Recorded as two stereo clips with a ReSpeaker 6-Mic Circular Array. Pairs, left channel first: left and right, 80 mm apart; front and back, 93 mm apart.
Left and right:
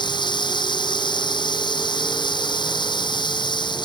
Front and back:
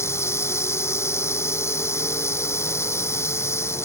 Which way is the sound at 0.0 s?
60° left.